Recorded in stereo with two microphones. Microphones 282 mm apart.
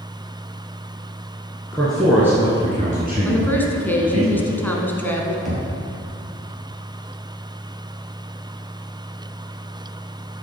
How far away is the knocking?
About 2.5 m.